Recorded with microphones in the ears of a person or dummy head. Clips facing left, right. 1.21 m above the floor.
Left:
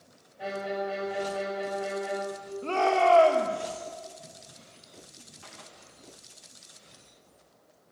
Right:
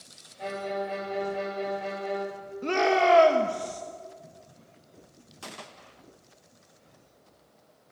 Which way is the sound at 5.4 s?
70° right (ahead or behind).